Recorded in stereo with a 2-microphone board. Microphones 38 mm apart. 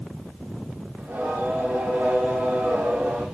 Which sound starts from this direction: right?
Singing, at 1.0 s.